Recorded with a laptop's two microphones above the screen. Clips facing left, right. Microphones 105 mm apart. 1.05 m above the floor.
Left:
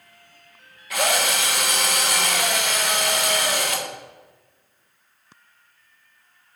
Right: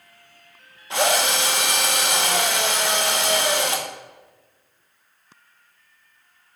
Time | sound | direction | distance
0.9 | a drill | 30° right (ahead or behind) | 1.0 m